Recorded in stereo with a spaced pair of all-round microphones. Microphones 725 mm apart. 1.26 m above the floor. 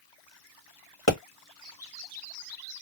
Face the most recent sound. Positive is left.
turn(degrees=20)  # may be behind; listen again after turning